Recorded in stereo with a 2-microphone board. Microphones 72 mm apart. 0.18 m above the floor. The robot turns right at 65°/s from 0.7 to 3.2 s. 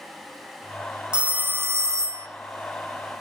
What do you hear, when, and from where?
1.1 s a phone ringing: 160° right, 1.0 m; by 2.3 s 90° right, 1.0 m